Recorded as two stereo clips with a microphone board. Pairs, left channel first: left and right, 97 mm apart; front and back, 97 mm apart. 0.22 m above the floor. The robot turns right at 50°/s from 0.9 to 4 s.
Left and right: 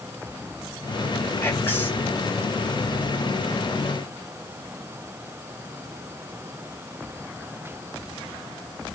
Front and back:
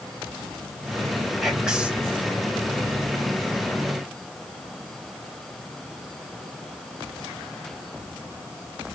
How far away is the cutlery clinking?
I don't hear cutlery clinking.